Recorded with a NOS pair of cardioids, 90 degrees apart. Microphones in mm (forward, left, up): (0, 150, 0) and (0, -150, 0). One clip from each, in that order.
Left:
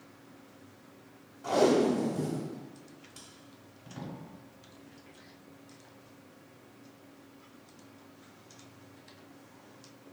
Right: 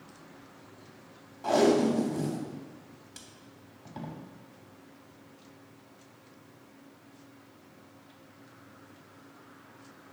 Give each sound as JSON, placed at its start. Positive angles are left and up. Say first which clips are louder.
{"t": 1.4, "sound": "tape being pulled", "louder": "right 1 dB", "azimuth_deg": -30, "distance_m": 0.6}